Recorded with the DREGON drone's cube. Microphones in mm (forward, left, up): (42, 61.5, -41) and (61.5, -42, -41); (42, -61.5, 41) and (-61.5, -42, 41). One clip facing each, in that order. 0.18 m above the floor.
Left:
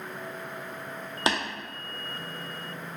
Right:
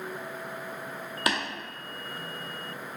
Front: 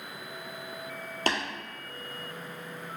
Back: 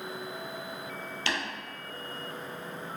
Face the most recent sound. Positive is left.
turn(degrees=35)